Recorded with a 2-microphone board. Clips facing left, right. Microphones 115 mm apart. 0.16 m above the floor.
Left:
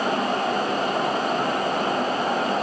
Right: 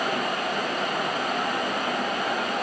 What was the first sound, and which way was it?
Only background noise.